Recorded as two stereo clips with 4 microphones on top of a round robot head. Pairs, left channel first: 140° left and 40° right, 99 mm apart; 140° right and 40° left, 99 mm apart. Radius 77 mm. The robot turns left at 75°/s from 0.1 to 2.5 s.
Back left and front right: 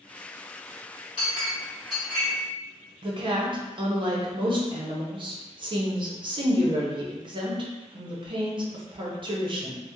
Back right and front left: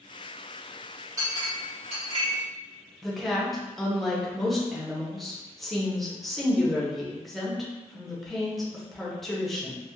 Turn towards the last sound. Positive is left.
turn(degrees=-50)